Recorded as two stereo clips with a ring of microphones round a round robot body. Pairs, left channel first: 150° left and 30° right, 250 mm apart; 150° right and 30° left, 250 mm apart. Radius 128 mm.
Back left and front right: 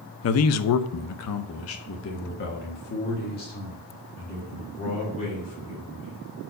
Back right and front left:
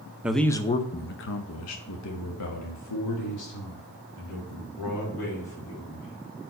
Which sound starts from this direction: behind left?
A man speaking, at 0.2 s.